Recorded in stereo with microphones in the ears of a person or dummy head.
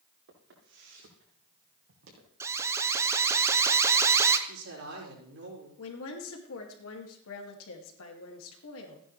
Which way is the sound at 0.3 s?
75° right (ahead or behind).